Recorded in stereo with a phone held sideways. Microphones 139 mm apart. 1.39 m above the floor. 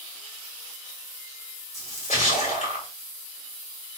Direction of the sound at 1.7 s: 50° left (ahead or behind).